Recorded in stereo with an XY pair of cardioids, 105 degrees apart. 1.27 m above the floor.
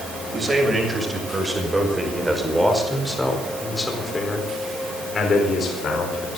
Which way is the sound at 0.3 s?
30° right.